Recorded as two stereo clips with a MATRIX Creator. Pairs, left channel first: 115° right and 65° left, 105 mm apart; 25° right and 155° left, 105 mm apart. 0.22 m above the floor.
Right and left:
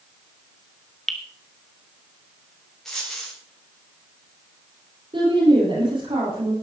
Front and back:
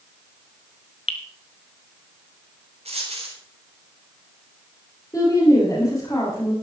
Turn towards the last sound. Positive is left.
turn(degrees=35)